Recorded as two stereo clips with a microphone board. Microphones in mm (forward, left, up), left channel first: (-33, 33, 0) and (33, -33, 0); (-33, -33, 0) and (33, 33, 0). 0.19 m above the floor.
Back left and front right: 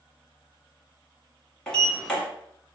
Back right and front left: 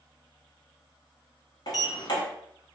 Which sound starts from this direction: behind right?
A sliding door, at 1.7 s.